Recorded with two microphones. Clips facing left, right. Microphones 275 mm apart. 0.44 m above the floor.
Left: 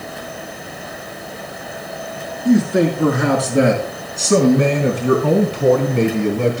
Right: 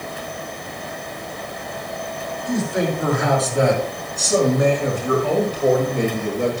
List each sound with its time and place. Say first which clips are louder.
2.5 s a man speaking: left 8 dB; 70° left (ahead or behind), 5 m; by 6.6 s 75° left (ahead or behind), 3.5 m